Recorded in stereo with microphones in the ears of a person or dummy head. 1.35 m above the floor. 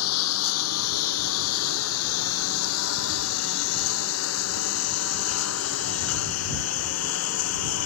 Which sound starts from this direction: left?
A lawn mower, at 0.0 s.